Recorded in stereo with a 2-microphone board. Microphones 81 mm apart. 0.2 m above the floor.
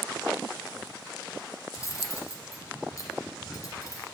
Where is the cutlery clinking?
45° left (ahead or behind), 1.6 m.